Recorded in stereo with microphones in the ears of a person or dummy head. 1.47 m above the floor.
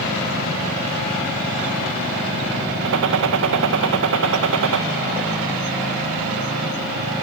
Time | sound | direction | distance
2.9 | a gunshot | 60° right (ahead or behind) | 1.7 m